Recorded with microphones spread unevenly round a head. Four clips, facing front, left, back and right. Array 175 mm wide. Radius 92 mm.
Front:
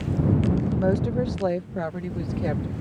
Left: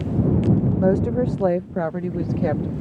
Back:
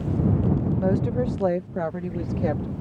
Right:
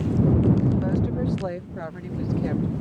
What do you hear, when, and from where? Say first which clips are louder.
0.8 s a woman speaking: left 6 dB, even; 80° left; by 2.7 s 100° left